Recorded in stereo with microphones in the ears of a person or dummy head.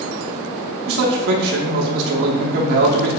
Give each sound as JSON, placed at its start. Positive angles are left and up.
{"t": 0.9, "sound": "a man speaking", "side_deg": -60, "distance_m": 0.7}